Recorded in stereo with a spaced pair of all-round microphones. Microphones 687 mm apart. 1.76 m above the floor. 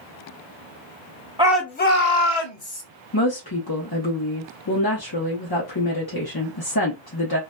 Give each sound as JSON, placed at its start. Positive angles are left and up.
{"t": 1.4, "sound": "a shout", "side_deg": -10, "distance_m": 0.8}
{"t": 3.1, "sound": "a woman speaking", "side_deg": 30, "distance_m": 0.7}